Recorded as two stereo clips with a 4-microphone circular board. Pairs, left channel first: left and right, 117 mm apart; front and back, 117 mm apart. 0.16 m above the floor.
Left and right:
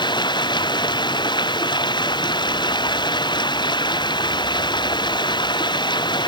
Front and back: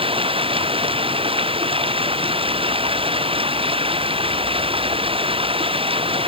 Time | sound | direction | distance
0.0 | running water | 140° left | ?